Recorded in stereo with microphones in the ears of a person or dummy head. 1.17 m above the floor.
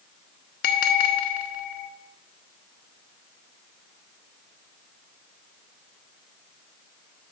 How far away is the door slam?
I don't hear a door slam.